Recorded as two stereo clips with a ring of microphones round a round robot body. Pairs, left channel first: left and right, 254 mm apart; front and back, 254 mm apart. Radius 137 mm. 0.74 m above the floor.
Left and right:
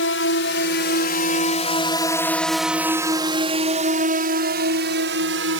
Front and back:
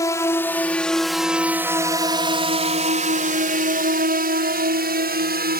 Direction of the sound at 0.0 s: 75° left.